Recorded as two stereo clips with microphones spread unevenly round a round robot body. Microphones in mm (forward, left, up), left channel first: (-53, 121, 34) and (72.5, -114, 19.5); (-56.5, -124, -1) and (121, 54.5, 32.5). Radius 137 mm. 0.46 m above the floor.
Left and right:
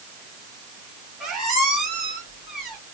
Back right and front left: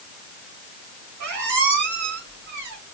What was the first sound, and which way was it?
A squeak, 25° left.